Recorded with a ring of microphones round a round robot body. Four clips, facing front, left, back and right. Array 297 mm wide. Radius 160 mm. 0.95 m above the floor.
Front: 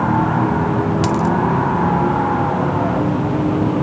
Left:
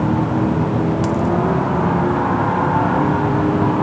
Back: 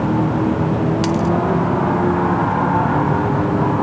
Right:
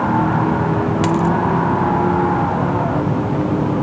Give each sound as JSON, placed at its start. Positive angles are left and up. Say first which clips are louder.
{"t": 1.0, "sound": "a dropped coin", "louder": "right 2 dB, front 1 dB", "azimuth_deg": -100}